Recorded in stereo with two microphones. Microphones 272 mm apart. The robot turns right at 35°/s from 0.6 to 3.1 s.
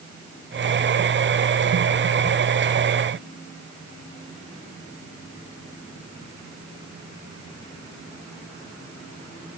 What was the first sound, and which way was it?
Only background noise.